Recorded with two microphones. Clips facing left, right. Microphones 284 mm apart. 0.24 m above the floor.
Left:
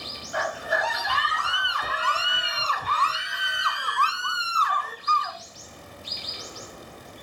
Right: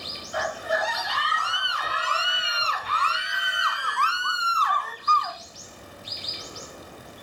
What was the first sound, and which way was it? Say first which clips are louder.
A scream: right 1 dB; 65° left (ahead or behind).